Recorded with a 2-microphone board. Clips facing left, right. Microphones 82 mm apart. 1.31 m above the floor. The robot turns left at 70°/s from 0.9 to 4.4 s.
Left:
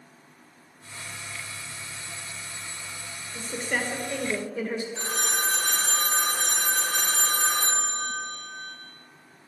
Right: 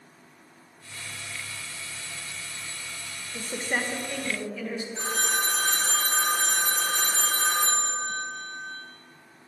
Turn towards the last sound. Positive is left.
turn(degrees=-5)  # may be behind; listen again after turning